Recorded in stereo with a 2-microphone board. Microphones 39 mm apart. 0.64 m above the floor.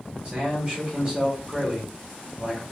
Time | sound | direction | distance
0.2 | a man speaking | 25° right (ahead or behind) | 1.2 m